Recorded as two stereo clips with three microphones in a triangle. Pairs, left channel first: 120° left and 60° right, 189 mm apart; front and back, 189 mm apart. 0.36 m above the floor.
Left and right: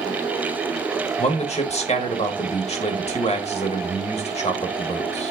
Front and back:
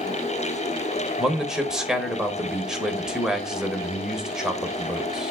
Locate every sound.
1.2 s a man speaking: 95° left, 1.1 m